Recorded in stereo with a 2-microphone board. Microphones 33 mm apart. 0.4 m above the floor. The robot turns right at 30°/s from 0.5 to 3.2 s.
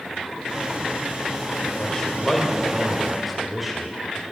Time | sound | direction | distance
1.8 | a man speaking | 25° left (ahead or behind) | 1.8 m